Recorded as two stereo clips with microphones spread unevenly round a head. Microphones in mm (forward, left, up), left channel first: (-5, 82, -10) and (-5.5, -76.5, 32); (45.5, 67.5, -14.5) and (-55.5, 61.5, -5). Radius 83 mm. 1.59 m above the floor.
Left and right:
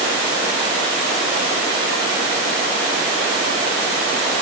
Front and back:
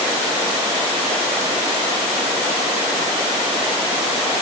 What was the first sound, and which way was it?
Only background noise.